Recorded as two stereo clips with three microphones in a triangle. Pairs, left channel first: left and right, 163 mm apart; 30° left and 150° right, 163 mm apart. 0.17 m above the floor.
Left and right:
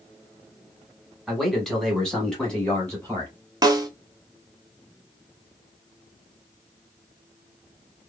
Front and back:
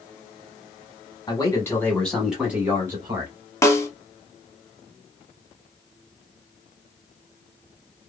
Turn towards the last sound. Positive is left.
turn(degrees=-35)